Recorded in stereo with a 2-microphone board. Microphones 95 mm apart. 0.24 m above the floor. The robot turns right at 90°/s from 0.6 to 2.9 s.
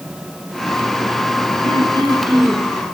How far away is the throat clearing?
About 5 m.